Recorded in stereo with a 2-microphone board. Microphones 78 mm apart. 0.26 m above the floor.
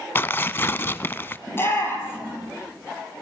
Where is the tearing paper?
30° left (ahead or behind), 0.6 m.